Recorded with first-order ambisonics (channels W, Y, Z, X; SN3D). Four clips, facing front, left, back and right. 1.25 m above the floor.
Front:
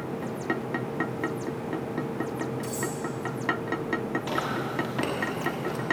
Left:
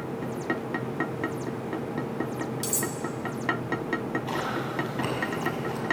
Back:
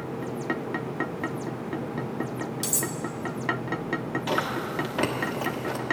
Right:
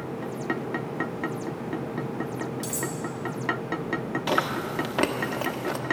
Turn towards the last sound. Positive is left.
turn(degrees=-100)